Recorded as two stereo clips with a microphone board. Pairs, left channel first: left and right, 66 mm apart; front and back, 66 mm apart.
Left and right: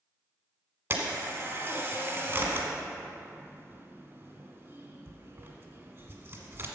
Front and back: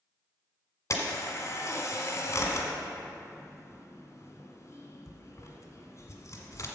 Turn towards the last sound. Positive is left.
turn(degrees=-35)